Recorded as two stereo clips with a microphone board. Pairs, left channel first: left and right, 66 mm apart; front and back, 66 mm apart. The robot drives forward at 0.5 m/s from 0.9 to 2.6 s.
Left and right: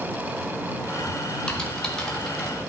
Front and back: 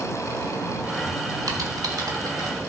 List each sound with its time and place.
1.5 s typing on a keyboard: 170° left, 1.4 m